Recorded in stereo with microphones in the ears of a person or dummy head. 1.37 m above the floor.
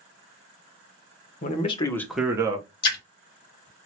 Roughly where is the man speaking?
Left.